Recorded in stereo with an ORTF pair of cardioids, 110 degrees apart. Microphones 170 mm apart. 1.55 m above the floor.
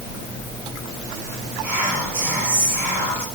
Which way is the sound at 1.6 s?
15° right.